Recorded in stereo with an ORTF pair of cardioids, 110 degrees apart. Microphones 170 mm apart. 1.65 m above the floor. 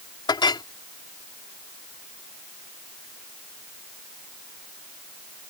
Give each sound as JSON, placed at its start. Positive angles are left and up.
{"t": 0.3, "sound": "a clink", "azimuth_deg": 25}